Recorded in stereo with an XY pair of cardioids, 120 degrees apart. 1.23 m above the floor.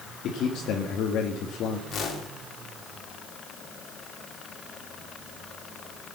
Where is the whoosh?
55° left, 2.5 m.